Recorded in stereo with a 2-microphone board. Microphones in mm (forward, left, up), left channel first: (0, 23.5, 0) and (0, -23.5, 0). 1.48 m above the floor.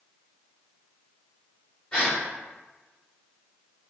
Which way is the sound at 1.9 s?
25° left (ahead or behind).